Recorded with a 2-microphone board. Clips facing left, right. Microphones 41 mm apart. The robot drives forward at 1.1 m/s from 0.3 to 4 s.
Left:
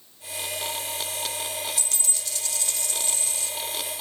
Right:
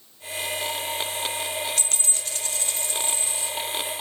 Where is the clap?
I don't hear a clap.